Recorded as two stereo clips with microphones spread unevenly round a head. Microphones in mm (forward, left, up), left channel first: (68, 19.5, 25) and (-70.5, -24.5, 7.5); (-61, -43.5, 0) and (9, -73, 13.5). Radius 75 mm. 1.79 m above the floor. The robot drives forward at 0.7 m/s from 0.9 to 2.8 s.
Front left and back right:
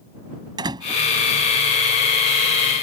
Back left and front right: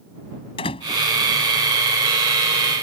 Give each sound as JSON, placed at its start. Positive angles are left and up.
{"t": 0.6, "sound": "a door slam", "azimuth_deg": 135}